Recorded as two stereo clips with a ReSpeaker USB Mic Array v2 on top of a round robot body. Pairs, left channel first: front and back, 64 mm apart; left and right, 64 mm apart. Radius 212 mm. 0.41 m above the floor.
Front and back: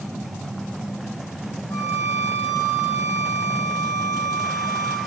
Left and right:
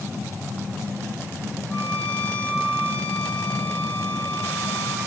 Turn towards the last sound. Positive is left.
turn(degrees=15)